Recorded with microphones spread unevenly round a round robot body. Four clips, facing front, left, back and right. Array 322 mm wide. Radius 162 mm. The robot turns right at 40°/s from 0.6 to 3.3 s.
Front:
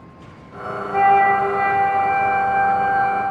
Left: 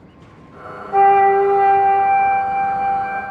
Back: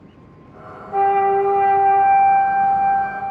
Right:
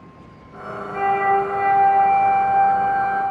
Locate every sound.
0.9 s a flute: 85° left, 1.8 m; by 3.2 s 175° left, 1.8 m